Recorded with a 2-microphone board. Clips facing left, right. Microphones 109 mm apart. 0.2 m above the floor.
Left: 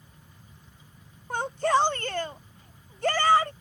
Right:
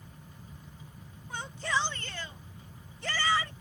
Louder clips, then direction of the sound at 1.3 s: Left 9 dB; 50° left (ahead or behind).